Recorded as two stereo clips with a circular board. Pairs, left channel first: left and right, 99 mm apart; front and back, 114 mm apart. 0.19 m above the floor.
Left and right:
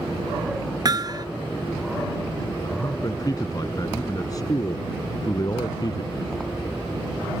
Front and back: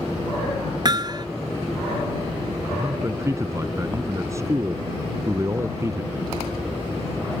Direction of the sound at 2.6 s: 125° left.